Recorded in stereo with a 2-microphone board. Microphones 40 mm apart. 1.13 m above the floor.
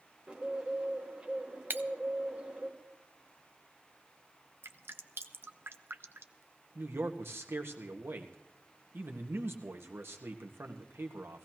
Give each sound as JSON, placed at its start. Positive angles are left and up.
{"t": 0.3, "sound": "a bird", "side_deg": -25, "distance_m": 2.0}
{"t": 1.7, "sound": "breaking glass", "side_deg": -55, "distance_m": 0.5}
{"t": 4.6, "sound": "dripping", "side_deg": -70, "distance_m": 0.7}
{"t": 6.8, "sound": "a man speaking", "side_deg": -75, "distance_m": 1.6}